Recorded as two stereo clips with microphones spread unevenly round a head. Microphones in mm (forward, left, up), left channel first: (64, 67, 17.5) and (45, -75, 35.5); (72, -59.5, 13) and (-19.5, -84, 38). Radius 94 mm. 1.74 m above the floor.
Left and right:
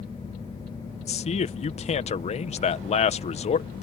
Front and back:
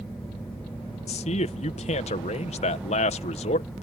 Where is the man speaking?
35° left.